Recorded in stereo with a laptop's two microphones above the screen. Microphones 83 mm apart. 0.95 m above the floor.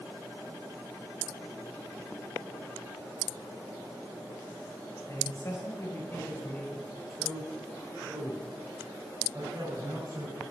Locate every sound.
5.1 s a man speaking: 45° left (ahead or behind), 5 m; by 10.4 s 45° right (ahead or behind), 6 m